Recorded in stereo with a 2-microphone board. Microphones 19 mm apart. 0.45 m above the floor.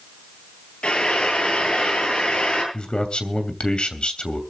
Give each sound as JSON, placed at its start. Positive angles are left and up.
{"t": 0.8, "sound": "frying", "side_deg": 70, "distance_m": 9.5}
{"t": 2.7, "sound": "a man speaking", "side_deg": 65, "distance_m": 2.5}